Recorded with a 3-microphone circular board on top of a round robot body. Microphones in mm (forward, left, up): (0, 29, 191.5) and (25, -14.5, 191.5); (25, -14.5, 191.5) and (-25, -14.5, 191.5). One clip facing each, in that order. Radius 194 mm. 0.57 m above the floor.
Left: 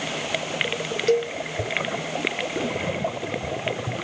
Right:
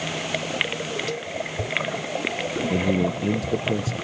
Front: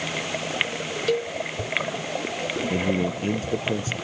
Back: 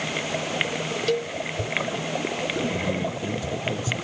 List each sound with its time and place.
1.1 s a cowbell: 85° left
2.7 s a man speaking: 50° right